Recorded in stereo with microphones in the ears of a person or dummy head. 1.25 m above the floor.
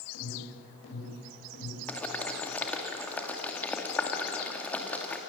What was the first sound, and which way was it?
An alarm, 80° left.